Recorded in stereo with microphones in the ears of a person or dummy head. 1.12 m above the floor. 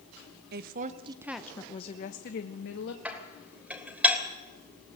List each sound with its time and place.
0.5 s a woman speaking: 55° right (ahead or behind), 1.0 m; by 3.0 s 65° left (ahead or behind), 1.7 m
3.0 s dishes clattering: 10° right (ahead or behind), 3 m